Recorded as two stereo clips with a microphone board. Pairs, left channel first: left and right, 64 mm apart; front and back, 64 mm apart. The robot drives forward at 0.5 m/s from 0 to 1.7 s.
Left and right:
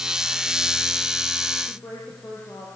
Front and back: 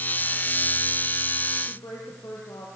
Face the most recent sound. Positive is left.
turn(degrees=40)